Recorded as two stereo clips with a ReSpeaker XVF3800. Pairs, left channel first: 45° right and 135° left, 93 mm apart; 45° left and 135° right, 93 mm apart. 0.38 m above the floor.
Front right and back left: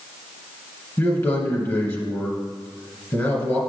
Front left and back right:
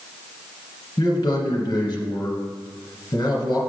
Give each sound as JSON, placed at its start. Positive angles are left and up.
{"t": 1.0, "sound": "a man speaking", "azimuth_deg": 10, "distance_m": 1.8}